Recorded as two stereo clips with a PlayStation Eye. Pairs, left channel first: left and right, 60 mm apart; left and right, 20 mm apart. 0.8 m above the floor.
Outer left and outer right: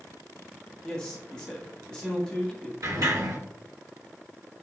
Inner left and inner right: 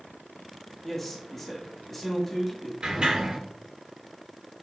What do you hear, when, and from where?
0.8 s a man speaking: 10° left (ahead or behind), 1.5 m
2.8 s a sliding door: 75° right (ahead or behind), 3 m